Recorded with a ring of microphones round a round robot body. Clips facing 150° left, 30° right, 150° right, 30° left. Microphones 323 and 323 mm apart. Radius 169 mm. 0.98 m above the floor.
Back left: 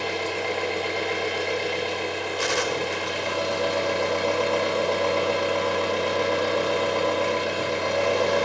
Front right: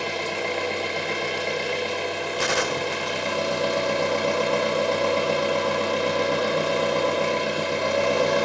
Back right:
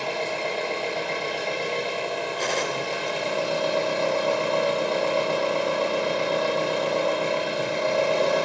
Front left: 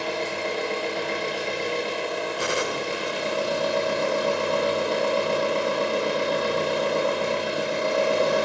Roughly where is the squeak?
I don't hear a squeak.